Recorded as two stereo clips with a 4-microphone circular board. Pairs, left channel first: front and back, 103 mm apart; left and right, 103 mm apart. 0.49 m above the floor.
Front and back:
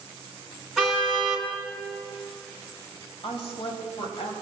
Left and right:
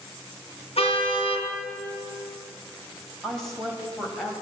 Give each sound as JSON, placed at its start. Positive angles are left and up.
{"t": 0.8, "sound": "a car horn", "azimuth_deg": 90, "distance_m": 2.5}
{"t": 3.2, "sound": "a woman speaking", "azimuth_deg": 5, "distance_m": 3.0}